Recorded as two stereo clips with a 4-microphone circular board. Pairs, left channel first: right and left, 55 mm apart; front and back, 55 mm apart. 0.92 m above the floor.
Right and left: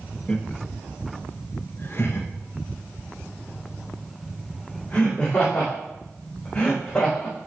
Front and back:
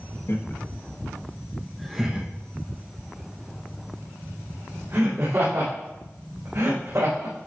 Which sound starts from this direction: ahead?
Laughter, at 0.3 s.